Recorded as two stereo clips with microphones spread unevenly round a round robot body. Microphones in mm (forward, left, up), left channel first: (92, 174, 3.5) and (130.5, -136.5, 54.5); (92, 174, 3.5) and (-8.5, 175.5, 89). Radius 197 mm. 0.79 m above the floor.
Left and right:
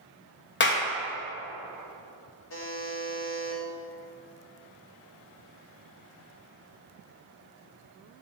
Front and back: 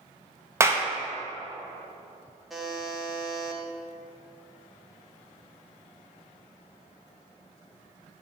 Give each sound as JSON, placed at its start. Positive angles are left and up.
{"t": 0.6, "sound": "a clap", "azimuth_deg": 75, "distance_m": 1.0}
{"t": 2.5, "sound": "a buzzer", "azimuth_deg": 70, "distance_m": 1.3}